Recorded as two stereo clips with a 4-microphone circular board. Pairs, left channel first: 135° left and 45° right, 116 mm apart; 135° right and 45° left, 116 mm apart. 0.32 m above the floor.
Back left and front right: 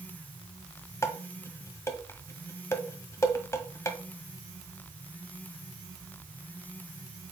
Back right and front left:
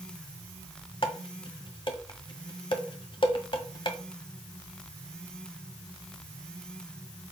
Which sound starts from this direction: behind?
Dishes clattering, at 1.0 s.